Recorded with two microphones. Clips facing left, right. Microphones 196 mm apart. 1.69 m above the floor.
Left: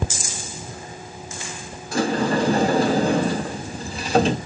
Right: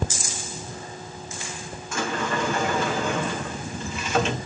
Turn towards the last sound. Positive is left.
turn(degrees=35)  # may be behind; listen again after turning